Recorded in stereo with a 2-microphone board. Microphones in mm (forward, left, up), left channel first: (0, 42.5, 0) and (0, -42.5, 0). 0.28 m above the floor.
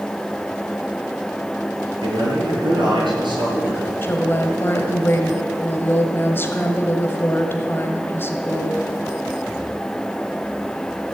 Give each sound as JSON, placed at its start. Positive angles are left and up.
{"t": 2.0, "sound": "a man speaking", "side_deg": -75, "distance_m": 6.5}
{"t": 4.0, "sound": "a woman speaking", "side_deg": 30, "distance_m": 1.6}